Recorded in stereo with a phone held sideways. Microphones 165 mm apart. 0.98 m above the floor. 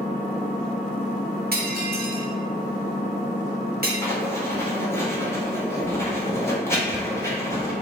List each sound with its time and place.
0.0 s an engine running: 45° left (ahead or behind), 0.7 m
1.5 s breaking glass: 65° right (ahead or behind), 0.8 m
4.0 s writing: 15° left (ahead or behind), 0.8 m